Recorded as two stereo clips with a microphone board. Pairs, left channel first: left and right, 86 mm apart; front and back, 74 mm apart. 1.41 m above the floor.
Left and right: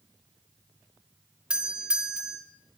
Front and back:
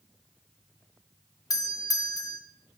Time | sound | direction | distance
1.5 | a doorbell | 15° right | 0.6 m